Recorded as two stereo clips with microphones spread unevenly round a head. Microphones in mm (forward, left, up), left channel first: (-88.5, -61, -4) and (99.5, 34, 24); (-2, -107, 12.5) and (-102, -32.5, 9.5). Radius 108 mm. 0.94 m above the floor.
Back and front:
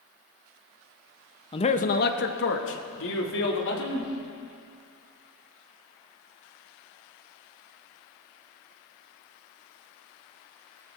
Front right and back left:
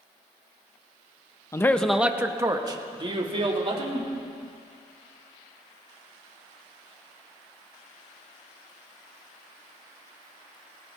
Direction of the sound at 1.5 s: 100° right.